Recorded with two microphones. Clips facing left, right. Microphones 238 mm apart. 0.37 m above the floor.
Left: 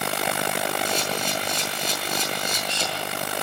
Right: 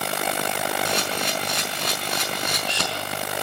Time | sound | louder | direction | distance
0.8 | a camera shutter | even | 75° right (ahead or behind) | 5.5 m